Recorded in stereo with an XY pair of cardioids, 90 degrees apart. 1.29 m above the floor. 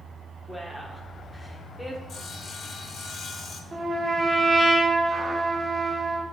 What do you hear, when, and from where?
0.5 s a woman speaking: 5° left, 0.9 m
2.1 s sawing: 55° left, 0.6 m
3.7 s a trumpet: 35° right, 1.0 m